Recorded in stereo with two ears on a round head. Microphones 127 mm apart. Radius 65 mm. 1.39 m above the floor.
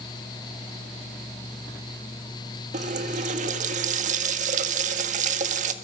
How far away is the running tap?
About 1.6 m.